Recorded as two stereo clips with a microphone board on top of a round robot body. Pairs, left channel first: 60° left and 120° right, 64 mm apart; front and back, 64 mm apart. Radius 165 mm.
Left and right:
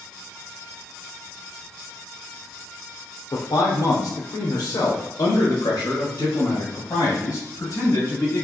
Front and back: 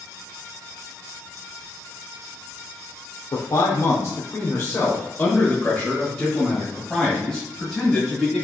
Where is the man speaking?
30° left, 0.9 m; by 8.4 s 95° left, 3 m.